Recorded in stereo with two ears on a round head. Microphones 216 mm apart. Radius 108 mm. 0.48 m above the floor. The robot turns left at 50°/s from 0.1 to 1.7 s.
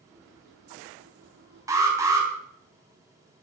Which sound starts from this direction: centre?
An alarm, at 1.7 s.